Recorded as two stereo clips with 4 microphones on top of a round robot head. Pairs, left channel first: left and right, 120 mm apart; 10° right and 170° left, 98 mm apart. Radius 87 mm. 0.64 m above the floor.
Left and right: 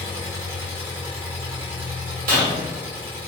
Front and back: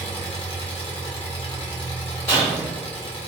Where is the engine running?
20° right, 0.7 m.